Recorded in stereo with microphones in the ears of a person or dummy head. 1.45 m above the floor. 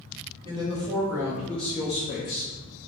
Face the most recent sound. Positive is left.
turn(degrees=65)  # may be behind; listen again after turning